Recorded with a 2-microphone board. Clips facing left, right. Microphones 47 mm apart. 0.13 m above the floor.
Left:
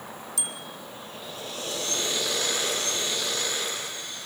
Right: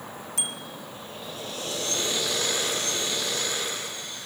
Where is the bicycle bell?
40° right (ahead or behind), 5 m.